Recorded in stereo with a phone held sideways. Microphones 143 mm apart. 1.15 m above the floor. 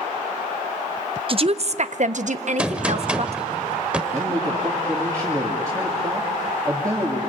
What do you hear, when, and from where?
1.3 s a woman speaking: 40° right (ahead or behind), 0.8 m; by 3.4 s 45° right (ahead or behind), 1.2 m
2.6 s a gunshot: 10° right (ahead or behind), 1.1 m
4.1 s a man speaking: 25° right (ahead or behind), 2.5 m